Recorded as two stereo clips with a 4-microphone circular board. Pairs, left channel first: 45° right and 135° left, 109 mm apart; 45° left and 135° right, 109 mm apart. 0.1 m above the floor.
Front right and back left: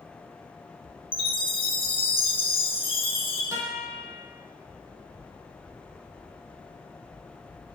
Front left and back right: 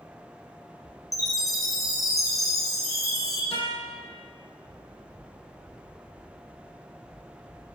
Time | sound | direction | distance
1.1 | a chime | 10° right | 0.8 m
3.5 | a guitar | 75° left | 1.1 m